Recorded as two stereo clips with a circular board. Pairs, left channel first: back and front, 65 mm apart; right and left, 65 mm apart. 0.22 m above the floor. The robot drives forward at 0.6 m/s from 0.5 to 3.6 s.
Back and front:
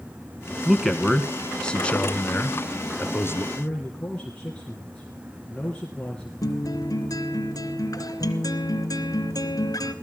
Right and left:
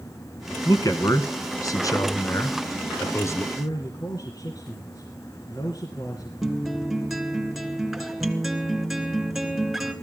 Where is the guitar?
175° left, 3 m.